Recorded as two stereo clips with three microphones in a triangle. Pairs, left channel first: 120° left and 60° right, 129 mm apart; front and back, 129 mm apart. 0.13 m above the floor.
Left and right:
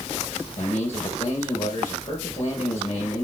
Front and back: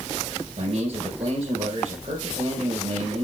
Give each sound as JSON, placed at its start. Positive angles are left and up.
{"t": 0.6, "sound": "a man speaking", "azimuth_deg": 150, "distance_m": 2.5}